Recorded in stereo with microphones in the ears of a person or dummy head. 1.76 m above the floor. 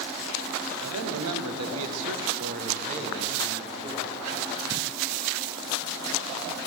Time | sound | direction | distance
0.8 | a man speaking | 65° right (ahead or behind) | 1.0 m